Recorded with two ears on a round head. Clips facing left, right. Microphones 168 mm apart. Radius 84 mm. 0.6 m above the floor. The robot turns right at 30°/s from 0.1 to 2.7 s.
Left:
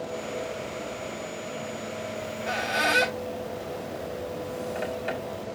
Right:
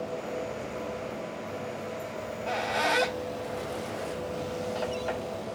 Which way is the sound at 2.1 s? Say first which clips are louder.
Even; 10° left (ahead or behind).